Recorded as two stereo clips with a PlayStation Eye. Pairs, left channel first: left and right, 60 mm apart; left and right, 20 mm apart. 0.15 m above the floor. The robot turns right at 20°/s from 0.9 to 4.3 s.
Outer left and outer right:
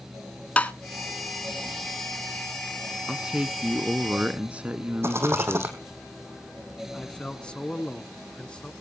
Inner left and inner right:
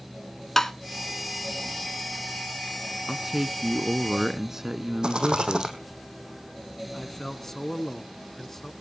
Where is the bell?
I don't hear a bell.